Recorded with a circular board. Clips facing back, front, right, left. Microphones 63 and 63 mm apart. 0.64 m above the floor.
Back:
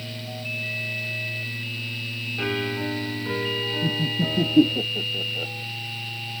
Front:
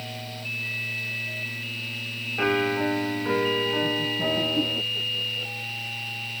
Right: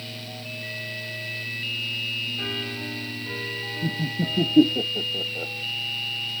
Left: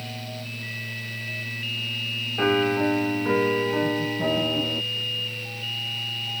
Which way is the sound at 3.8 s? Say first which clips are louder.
Even, left 4 dB; 120° right.